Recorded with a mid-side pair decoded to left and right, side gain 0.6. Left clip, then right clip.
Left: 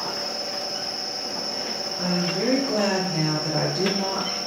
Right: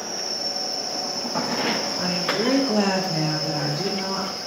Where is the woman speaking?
50° right, 0.9 m; by 4.3 s 55° left, 0.8 m.